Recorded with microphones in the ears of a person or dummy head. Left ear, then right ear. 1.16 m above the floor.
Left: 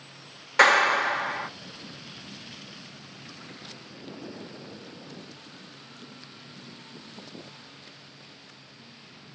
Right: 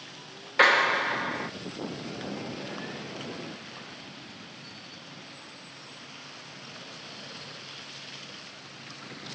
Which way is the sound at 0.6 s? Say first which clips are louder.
Left 2 dB; 35° left (ahead or behind).